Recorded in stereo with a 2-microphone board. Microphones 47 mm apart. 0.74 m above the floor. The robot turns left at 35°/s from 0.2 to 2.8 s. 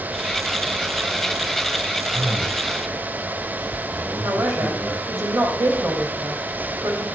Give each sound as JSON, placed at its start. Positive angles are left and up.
{"t": 2.1, "sound": "a man speaking", "side_deg": -40, "distance_m": 4.5}
{"t": 4.2, "sound": "a man speaking", "side_deg": -80, "distance_m": 3.0}